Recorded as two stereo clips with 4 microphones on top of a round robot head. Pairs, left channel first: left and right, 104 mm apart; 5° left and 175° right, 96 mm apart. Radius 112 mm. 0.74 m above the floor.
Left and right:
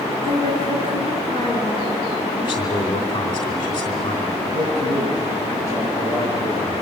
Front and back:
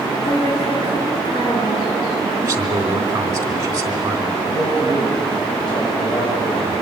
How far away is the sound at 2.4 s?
About 3.5 m.